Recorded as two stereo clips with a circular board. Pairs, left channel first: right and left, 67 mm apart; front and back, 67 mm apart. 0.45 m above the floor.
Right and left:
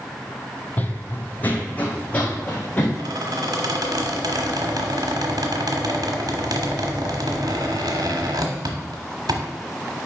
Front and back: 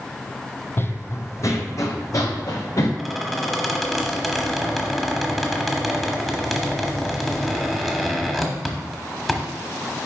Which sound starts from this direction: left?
A squeak, at 3.0 s.